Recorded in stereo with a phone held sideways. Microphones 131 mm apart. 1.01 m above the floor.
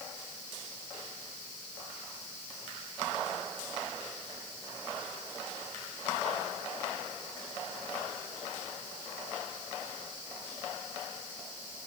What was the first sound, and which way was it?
Only background noise.